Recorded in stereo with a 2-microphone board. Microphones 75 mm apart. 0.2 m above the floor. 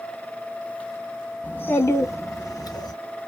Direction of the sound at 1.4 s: 20° left (ahead or behind).